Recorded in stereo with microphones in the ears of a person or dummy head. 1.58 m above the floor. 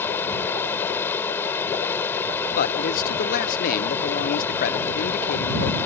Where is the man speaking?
50° left (ahead or behind).